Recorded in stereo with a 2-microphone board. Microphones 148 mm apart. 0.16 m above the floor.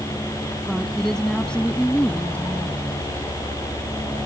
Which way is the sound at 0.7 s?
Centre (ahead or behind).